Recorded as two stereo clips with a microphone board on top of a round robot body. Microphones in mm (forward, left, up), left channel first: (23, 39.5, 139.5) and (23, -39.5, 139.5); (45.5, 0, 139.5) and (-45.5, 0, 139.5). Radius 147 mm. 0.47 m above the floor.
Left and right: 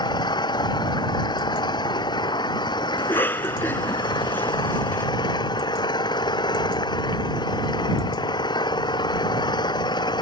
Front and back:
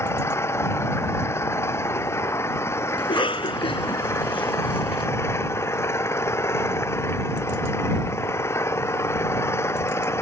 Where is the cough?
25° left.